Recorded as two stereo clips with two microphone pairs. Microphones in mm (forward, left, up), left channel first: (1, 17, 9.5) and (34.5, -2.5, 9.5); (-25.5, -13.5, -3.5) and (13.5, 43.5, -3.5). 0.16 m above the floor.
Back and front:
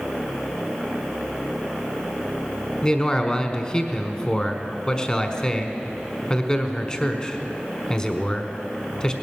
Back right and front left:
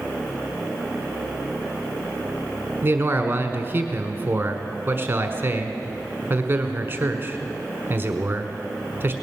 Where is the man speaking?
85° left, 1.2 m.